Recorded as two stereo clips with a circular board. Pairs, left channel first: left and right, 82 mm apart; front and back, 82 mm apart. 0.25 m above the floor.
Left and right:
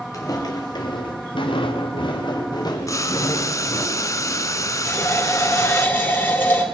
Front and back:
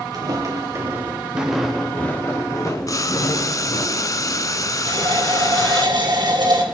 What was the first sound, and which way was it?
Footsteps, 140° left.